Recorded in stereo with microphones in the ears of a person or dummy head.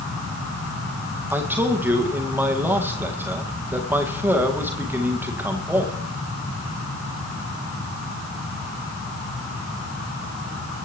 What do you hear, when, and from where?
1.3 s a man speaking: 10° right (ahead or behind), 1.5 m